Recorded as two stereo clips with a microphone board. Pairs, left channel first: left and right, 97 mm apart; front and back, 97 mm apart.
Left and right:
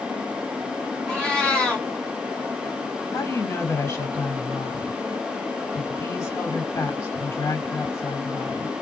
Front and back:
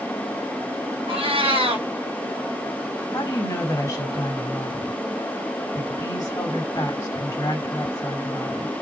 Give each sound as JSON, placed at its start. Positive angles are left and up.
{"t": 1.1, "sound": "a cat meowing", "azimuth_deg": 170, "distance_m": 1.9}
{"t": 3.1, "sound": "a woman speaking", "azimuth_deg": 40, "distance_m": 2.5}